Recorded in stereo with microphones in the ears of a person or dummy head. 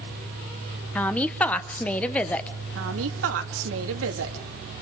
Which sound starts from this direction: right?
A woman speaking, at 2.8 s.